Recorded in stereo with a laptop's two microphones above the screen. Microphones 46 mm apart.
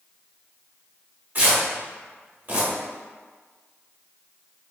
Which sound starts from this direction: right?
Tearing paper, at 1.4 s.